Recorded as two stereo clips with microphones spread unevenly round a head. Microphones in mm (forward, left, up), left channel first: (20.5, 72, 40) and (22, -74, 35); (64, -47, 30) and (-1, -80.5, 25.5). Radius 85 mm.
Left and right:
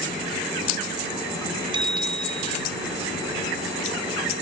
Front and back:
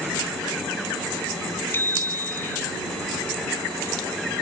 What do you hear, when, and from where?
1.7 s a bicycle bell: 30° right